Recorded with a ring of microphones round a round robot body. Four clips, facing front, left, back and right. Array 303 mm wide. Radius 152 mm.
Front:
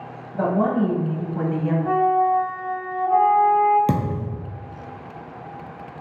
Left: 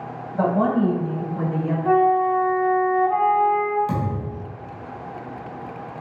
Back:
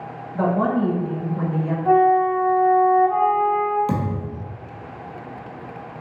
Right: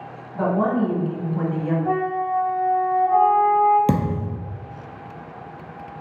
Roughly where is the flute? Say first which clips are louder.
Left 5 dB, back 4 dB; left.